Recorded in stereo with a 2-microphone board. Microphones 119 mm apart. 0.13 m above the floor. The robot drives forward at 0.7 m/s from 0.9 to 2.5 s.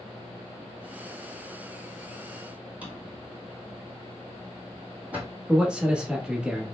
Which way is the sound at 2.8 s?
15° right (ahead or behind).